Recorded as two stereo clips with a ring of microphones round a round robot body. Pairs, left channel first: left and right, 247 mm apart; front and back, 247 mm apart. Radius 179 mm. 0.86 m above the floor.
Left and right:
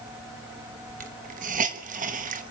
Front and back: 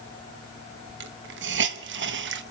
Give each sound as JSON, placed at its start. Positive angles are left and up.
{"t": 1.0, "sound": "a hiss", "azimuth_deg": -145, "distance_m": 1.0}